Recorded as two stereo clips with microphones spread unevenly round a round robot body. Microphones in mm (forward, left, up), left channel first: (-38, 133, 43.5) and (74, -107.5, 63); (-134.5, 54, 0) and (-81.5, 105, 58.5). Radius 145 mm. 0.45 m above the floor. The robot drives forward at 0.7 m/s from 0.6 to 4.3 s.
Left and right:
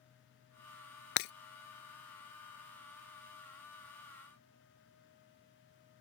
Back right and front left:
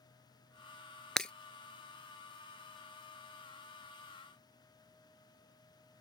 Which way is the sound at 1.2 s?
115° left.